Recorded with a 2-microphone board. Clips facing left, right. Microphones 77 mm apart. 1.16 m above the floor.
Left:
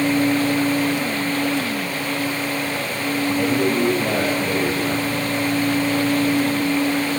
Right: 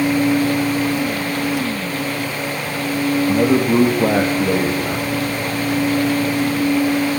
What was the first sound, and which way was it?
A man speaking, 80° right.